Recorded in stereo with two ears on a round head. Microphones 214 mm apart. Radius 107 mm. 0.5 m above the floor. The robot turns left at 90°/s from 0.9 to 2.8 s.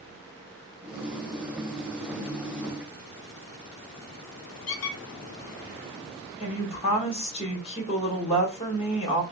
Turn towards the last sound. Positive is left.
turn(degrees=25)  # may be behind; listen again after turning